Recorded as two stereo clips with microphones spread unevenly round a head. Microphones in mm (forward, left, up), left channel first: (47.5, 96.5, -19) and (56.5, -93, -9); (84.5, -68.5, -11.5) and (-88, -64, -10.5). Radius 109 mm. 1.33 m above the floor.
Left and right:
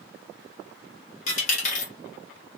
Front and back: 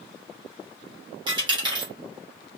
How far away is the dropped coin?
About 1.0 m.